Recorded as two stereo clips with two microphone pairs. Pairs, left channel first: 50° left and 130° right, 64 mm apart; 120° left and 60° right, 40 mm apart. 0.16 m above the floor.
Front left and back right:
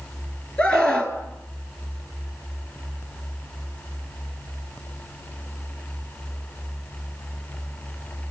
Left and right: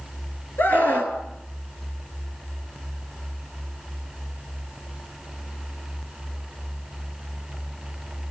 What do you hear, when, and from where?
0.6 s a scream: 115° left, 3 m